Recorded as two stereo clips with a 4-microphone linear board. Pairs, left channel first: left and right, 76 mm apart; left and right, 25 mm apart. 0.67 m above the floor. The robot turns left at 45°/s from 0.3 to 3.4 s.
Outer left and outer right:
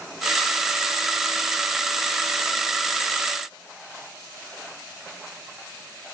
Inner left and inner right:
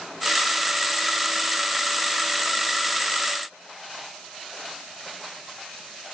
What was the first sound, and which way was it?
Only background noise.